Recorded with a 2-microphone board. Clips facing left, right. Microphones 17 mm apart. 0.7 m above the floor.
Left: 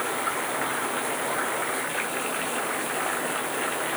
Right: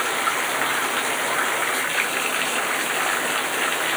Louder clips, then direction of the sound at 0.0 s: Right 5 dB; 85° right.